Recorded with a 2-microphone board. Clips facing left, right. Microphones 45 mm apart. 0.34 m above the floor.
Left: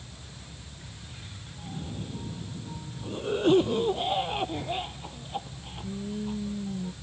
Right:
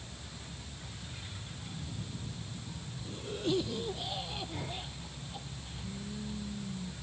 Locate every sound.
1.6 s a cough: 40° left (ahead or behind)